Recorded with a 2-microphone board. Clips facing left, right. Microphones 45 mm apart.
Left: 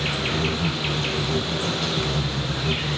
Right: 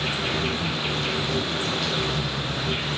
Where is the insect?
50° left (ahead or behind), 0.7 m.